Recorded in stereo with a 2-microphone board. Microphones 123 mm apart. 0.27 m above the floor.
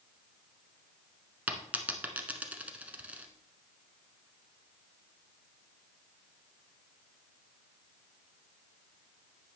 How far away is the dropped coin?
About 1.2 m.